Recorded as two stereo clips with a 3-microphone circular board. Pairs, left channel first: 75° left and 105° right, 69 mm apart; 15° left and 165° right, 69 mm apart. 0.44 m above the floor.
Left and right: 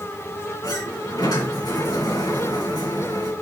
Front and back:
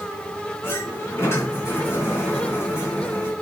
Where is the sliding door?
65° left, 3.5 m.